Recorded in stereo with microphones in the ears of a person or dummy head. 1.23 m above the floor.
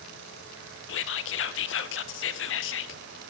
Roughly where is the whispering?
Left.